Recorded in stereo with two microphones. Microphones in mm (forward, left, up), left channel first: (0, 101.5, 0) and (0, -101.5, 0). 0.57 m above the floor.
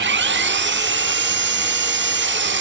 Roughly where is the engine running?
Right.